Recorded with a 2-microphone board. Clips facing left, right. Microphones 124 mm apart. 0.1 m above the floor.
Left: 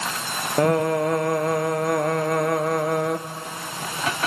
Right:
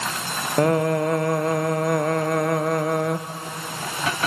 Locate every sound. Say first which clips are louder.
0.6 s singing: even; centre (ahead or behind), 0.7 m